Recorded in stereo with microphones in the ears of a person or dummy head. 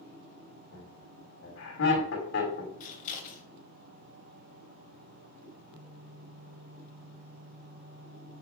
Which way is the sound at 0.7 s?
70° left (ahead or behind).